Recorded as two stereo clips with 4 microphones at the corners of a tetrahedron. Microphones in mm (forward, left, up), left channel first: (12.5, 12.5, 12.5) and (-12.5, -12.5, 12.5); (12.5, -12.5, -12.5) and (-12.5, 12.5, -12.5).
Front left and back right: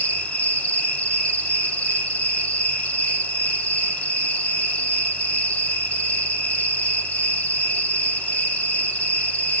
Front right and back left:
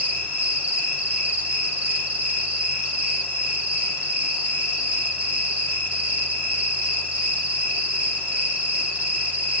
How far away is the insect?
About 7 m.